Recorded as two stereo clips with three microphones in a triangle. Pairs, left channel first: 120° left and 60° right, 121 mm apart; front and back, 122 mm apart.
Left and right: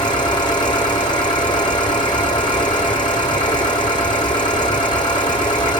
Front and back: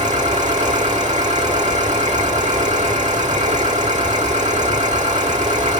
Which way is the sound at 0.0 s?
175° left.